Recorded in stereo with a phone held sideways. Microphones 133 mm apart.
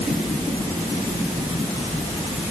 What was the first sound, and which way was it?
Only background noise.